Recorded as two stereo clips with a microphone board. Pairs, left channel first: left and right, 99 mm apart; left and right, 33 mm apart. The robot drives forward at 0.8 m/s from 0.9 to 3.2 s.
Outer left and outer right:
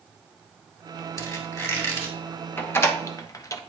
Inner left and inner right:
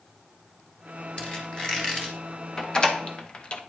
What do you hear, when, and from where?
1.2 s a squeak: 30° left (ahead or behind), 1.8 m; by 2.2 s 20° left (ahead or behind), 2.5 m
2.6 s a door slam: 20° left (ahead or behind), 1.0 m; by 3.6 s 35° left (ahead or behind), 0.7 m